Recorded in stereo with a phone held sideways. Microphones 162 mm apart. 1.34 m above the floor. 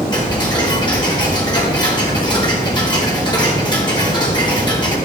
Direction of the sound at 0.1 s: 25° left (ahead or behind).